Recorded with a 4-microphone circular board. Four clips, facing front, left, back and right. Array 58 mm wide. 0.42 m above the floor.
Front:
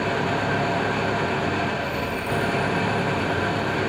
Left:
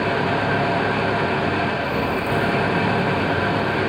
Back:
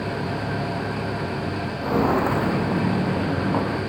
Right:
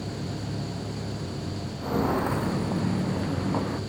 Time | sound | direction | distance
0.0 | an engine running | 70° left | ?
1.8 | footsteps | 175° left | ?